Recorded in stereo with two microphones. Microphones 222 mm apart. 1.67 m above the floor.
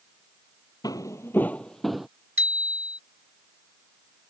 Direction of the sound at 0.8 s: 20° left (ahead or behind).